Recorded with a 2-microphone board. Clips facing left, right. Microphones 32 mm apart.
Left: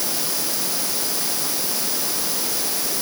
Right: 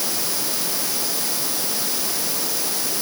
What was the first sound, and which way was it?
Only background noise.